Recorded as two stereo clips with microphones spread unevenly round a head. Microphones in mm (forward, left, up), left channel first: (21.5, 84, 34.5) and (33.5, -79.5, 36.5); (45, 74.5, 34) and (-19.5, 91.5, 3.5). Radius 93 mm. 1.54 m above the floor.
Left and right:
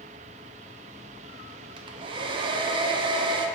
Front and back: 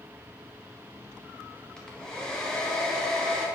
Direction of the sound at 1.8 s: 45° right.